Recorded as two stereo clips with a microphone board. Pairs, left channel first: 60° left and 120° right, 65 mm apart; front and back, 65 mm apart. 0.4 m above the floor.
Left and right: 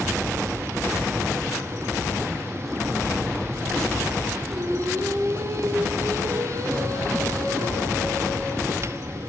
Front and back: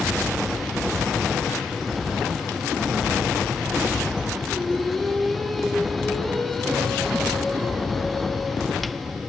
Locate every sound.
4.5 s singing: 85° right, 5.5 m